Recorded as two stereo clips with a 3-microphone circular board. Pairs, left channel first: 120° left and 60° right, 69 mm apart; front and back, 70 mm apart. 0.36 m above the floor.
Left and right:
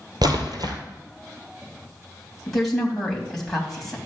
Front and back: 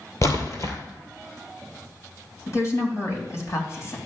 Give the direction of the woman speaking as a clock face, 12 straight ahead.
11 o'clock.